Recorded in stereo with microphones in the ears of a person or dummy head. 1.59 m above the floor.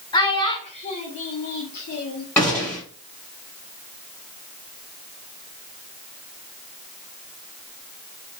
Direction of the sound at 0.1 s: 20° left (ahead or behind).